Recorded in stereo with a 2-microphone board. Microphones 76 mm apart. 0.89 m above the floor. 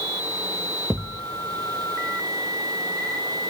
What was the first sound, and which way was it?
A thud, centre (ahead or behind).